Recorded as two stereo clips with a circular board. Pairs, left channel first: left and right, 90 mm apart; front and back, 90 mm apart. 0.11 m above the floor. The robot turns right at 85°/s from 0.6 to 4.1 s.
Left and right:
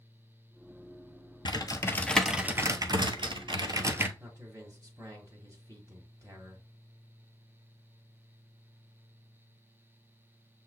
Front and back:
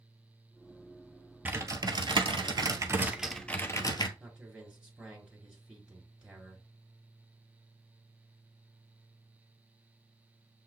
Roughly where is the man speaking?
Right.